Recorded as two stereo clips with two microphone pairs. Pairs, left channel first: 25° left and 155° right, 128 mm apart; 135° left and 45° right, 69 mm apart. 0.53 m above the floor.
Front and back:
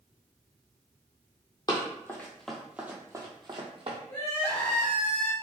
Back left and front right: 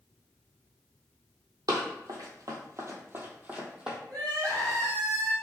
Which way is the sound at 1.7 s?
30° right.